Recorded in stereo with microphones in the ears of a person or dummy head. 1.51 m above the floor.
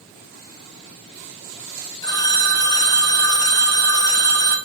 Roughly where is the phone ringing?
Left.